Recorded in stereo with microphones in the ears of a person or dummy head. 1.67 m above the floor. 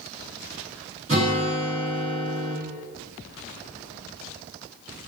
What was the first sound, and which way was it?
A guitar, 25° right (ahead or behind).